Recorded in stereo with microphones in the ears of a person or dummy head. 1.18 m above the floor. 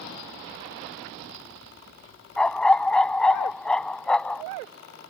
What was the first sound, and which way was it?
A dog barking, 10° left (ahead or behind).